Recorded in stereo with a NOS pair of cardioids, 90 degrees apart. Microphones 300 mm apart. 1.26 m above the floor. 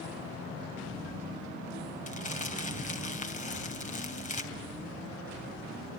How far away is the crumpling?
About 3 m.